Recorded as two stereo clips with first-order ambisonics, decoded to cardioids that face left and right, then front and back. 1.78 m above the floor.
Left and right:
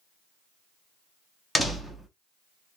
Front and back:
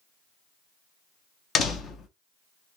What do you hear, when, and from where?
1.6 s a door slam: 5° left, 0.9 m